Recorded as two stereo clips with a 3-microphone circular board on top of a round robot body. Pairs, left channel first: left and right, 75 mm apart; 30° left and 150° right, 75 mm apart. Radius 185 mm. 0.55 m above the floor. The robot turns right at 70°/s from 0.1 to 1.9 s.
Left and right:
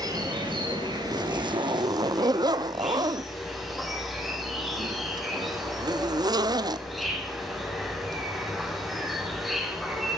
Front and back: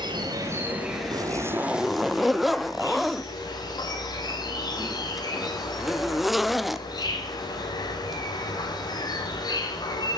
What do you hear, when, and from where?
0.0 s an insect: 125° right, 7.5 m; by 10.2 s straight ahead, 7.5 m
1.1 s a zipper: 115° right, 0.9 m; by 9.0 s 60° right, 0.9 m